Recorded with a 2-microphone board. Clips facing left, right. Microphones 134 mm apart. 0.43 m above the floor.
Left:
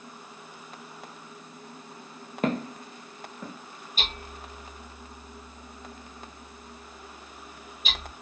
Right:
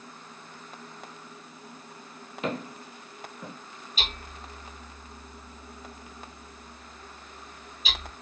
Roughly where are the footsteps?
Left.